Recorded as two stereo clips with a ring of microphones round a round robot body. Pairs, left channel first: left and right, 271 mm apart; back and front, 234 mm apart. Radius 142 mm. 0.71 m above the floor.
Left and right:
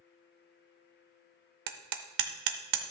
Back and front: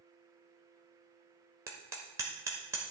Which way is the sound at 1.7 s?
80° right.